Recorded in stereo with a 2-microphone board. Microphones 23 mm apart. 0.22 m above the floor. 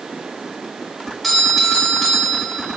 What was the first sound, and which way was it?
A doorbell, centre (ahead or behind).